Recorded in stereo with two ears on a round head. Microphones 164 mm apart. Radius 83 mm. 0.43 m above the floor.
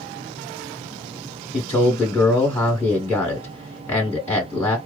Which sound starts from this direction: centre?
A man speaking, at 1.5 s.